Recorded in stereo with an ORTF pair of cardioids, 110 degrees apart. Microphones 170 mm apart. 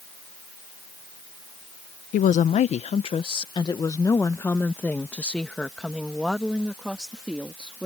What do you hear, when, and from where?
2.1 s a woman speaking: 55° left; by 7.9 s 5° right